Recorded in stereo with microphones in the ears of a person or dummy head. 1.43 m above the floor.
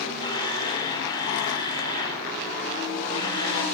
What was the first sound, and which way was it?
A camera shutter, 25° left (ahead or behind).